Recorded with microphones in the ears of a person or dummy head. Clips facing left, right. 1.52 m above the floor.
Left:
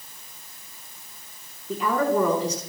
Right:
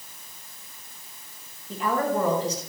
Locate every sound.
1.7 s a woman speaking: 65° left (ahead or behind), 5 m